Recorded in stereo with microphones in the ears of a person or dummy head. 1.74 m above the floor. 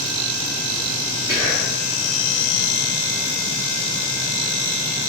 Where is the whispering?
15° right (ahead or behind), 0.5 m.